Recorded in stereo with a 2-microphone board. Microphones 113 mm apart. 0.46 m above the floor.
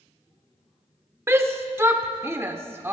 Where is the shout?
20° right (ahead or behind), 0.9 m.